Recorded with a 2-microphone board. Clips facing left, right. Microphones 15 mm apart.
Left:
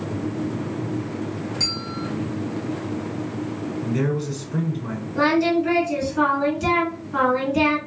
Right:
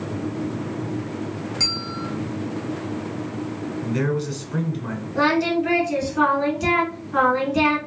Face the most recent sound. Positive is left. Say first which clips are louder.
# left 1 dB
turn(degrees=-10)  # may be behind; listen again after turning